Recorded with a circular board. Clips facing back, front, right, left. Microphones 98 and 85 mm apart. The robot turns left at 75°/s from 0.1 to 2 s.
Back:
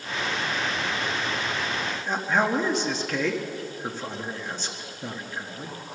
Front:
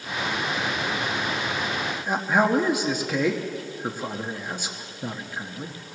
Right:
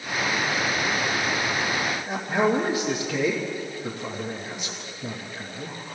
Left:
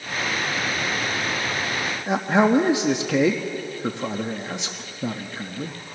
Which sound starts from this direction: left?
A man speaking, at 2.1 s.